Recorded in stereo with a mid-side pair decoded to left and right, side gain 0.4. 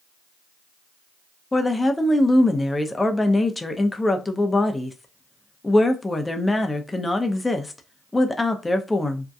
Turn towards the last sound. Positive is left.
turn(degrees=20)